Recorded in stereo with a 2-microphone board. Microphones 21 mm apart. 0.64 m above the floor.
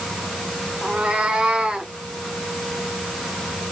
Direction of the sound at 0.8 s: 80° right.